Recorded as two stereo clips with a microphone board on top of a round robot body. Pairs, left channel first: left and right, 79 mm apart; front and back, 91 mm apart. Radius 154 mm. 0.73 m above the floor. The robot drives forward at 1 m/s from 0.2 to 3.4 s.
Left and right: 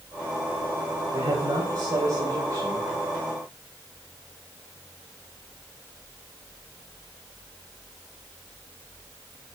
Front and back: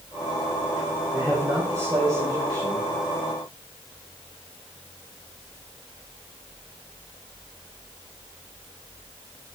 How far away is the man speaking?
About 3.5 m.